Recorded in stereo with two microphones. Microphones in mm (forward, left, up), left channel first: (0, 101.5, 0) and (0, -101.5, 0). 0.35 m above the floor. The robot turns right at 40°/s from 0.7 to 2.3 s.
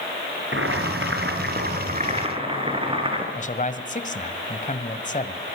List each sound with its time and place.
0.5 s boiling: 90° right, 4.5 m; by 3.2 s 25° right, 4.5 m
3.4 s a man speaking: 40° left (ahead or behind), 1.9 m